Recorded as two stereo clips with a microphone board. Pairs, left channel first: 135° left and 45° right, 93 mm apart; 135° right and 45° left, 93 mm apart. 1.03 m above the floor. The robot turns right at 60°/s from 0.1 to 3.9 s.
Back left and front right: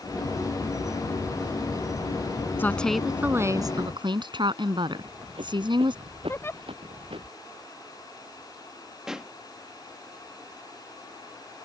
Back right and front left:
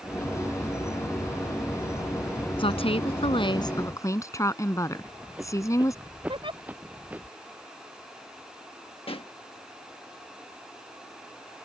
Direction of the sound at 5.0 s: 35° right.